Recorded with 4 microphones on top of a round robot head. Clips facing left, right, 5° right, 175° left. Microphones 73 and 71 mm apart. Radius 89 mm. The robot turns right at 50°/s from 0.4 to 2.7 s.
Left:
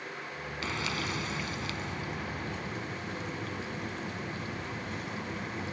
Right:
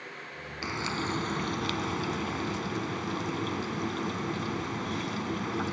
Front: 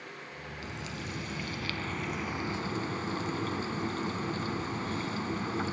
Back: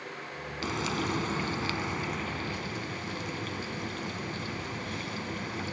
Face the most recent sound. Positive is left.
turn(degrees=-65)